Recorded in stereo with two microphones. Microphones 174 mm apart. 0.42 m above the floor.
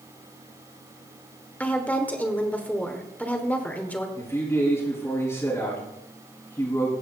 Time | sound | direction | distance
1.6 | a woman speaking | 10° left (ahead or behind) | 1.2 m
4.2 | a man speaking | 20° left (ahead or behind) | 4 m